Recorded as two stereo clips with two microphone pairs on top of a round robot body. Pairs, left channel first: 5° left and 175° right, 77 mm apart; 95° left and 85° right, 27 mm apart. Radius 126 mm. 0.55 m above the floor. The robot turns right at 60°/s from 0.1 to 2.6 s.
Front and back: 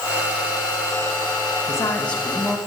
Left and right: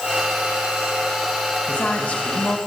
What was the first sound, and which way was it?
A woman speaking, 50° left.